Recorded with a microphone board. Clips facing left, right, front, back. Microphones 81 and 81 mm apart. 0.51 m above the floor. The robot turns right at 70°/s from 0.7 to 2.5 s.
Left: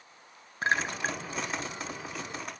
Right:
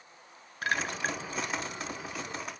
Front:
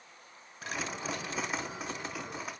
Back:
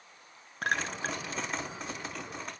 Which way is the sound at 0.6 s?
155° left.